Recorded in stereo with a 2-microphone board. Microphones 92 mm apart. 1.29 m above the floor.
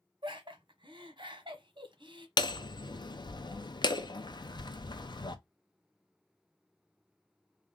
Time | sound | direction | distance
0.2 | laughter | 60° right (ahead or behind) | 1.0 m
2.4 | hammering | 50° left (ahead or behind) | 0.6 m